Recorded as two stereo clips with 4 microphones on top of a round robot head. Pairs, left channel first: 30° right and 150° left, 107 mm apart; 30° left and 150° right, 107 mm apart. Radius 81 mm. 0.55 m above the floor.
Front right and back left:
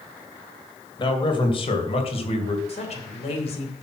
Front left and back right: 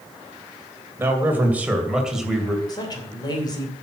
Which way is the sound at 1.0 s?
80° right.